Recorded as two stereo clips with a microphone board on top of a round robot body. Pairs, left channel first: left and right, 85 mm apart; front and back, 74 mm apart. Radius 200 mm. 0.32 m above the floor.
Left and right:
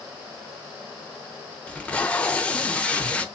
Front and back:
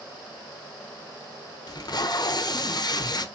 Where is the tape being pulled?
15° left, 0.8 m.